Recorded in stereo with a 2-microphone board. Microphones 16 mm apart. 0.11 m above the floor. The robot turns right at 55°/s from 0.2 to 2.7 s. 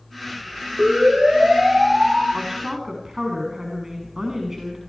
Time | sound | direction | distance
0.8 | a siren | 75° right (ahead or behind) | 9 m
2.3 | a woman speaking | 40° right (ahead or behind) | 9 m